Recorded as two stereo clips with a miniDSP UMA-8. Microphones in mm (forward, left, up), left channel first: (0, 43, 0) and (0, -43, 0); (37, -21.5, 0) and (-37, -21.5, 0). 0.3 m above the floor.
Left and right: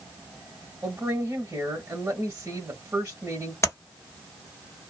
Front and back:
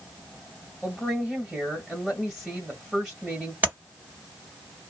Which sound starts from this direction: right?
A woman speaking, at 0.8 s.